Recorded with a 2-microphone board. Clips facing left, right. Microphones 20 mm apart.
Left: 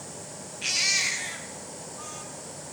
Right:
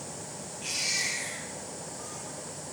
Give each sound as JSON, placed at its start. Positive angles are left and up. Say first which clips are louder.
{"t": 0.6, "sound": "a baby crying", "louder": "left 6 dB", "side_deg": 35, "distance_m": 1.7}